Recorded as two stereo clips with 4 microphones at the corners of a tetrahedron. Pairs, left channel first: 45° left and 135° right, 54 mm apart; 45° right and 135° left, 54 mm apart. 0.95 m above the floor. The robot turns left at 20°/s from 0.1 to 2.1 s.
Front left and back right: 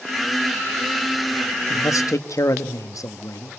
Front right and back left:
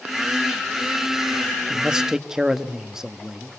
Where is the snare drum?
No snare drum in this recording.